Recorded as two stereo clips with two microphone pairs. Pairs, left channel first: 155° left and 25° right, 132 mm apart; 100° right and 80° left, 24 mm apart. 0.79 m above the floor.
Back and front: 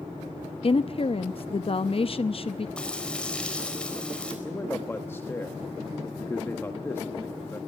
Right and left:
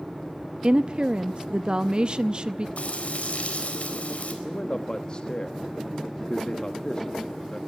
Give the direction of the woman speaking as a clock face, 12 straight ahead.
8 o'clock.